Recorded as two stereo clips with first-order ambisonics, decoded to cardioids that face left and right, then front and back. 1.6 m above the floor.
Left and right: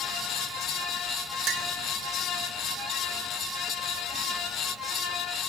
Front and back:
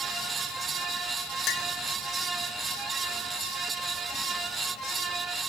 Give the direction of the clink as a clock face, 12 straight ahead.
2 o'clock.